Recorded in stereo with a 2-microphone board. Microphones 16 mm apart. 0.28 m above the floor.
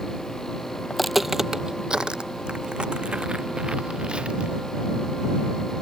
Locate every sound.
0.9 s footsteps: 15° left (ahead or behind); by 4.5 s 80° right